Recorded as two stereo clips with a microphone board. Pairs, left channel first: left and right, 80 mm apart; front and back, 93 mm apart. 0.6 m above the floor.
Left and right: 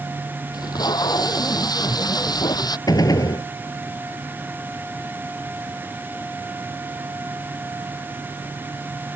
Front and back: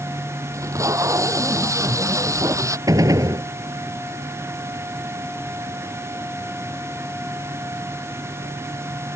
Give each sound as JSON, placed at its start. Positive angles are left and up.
{"t": 0.5, "sound": "tape being pulled", "azimuth_deg": 125}
{"t": 2.9, "sound": "a gunshot", "azimuth_deg": 130}